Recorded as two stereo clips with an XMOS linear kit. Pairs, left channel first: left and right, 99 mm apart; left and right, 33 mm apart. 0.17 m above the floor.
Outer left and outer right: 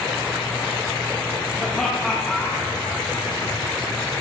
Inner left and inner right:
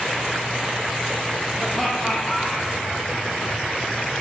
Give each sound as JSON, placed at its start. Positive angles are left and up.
{"t": 1.6, "sound": "laughter", "side_deg": 5, "distance_m": 5.0}